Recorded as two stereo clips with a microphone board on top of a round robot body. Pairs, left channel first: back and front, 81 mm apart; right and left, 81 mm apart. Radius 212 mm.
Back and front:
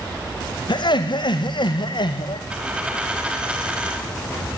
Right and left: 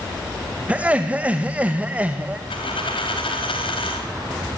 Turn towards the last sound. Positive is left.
turn(degrees=-80)